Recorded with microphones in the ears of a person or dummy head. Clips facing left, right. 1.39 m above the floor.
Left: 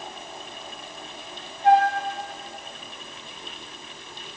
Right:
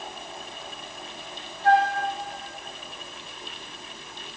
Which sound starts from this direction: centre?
A flute, at 1.6 s.